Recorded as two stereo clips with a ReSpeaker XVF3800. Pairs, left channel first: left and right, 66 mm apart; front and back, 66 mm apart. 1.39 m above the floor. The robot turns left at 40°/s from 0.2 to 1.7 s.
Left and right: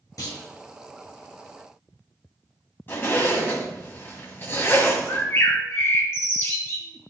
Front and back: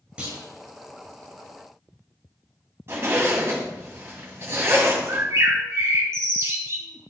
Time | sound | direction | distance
0.2 | a clunk | 110° left | 2.5 m
2.9 | a zipper | 140° left | 2.5 m
5.1 | a bird | 140° left | 1.6 m